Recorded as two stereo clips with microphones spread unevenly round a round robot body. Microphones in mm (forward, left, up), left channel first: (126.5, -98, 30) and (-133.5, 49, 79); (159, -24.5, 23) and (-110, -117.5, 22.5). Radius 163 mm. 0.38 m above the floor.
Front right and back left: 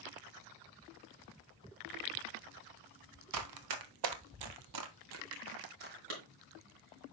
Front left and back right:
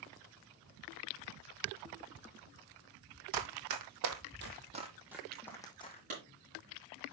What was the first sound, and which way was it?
Running footsteps, 175° left.